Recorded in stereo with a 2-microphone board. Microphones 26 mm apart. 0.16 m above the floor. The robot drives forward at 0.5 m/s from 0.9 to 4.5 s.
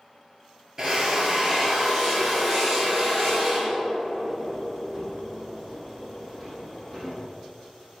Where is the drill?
25° right (ahead or behind), 2 m; by 7.1 s 15° right (ahead or behind), 4 m.